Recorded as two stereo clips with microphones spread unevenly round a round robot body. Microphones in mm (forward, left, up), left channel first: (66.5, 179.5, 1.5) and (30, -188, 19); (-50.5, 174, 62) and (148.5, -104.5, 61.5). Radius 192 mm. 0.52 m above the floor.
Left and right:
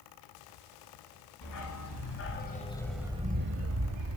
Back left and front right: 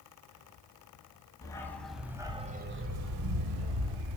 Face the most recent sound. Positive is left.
turn(degrees=-60)